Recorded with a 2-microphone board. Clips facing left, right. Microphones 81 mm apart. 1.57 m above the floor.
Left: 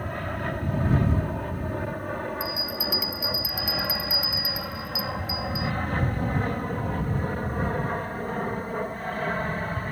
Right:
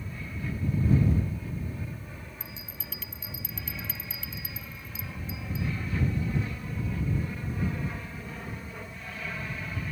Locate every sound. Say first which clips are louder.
0.0 s an aircraft: left 8 dB; 65° left (ahead or behind); by 9.9 s 45° left (ahead or behind)
2.4 s a bell: left 15 dB; 10° left (ahead or behind)